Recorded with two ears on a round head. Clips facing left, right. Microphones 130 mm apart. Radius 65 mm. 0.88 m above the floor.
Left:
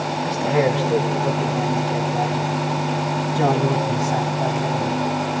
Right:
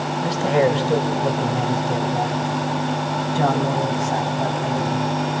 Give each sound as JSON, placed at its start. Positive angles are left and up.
{"t": 0.2, "sound": "a man speaking", "side_deg": -40, "distance_m": 5.0}